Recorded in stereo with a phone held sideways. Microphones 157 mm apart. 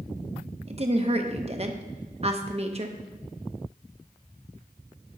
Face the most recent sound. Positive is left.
turn(degrees=-40)  # may be behind; listen again after turning